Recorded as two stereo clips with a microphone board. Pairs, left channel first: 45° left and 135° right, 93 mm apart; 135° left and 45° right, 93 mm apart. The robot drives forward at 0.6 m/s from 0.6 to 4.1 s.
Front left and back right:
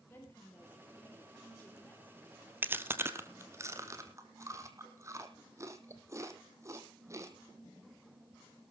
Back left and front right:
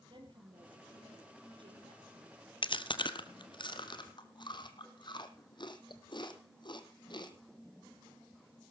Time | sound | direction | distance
0.1 | a woman speaking | 20° right | 4.5 m
2.6 | chewing | 160° left | 0.9 m